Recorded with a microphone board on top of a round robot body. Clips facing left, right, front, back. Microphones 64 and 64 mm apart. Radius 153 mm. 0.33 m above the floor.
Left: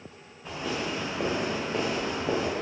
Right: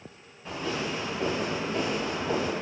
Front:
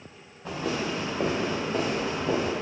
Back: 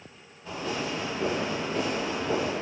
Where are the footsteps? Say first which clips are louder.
Even, front 2 dB; 10° left, 2 m; by 2.5 s 50° left, 3.5 m.